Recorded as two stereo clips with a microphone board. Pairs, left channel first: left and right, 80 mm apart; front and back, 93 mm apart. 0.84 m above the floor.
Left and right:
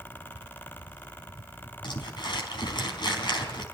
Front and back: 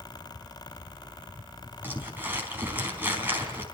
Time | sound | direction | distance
1.8 | crumpling | 110° left | 4 m